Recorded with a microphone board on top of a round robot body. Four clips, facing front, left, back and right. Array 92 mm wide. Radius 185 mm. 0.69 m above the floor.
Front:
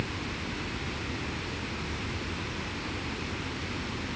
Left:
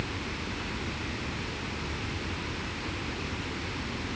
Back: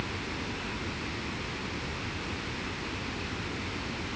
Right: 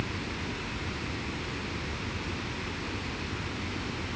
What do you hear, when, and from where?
Only background noise.